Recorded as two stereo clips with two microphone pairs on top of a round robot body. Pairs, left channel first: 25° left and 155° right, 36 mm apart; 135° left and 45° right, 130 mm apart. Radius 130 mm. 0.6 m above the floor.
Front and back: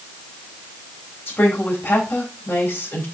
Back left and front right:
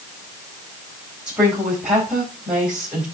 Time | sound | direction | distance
1.3 | a woman speaking | 35° left | 4.5 m